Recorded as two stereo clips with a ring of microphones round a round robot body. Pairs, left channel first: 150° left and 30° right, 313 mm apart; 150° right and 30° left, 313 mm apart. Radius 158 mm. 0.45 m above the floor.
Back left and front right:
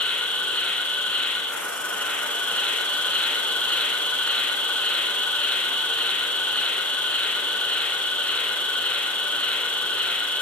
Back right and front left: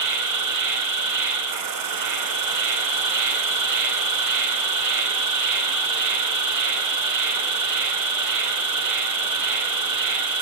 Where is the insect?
65° left, 1.5 m.